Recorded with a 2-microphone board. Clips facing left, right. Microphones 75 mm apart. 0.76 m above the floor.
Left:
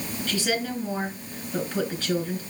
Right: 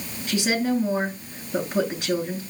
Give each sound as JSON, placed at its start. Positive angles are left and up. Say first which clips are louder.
{"t": 0.3, "sound": "a woman speaking", "louder": "right 5 dB", "side_deg": -20, "distance_m": 8.0}